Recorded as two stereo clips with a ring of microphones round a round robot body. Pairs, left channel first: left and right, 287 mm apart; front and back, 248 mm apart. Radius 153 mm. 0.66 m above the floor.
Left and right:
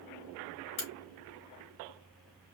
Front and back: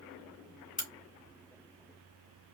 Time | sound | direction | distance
0.8 | a crack | 60° left | 3 m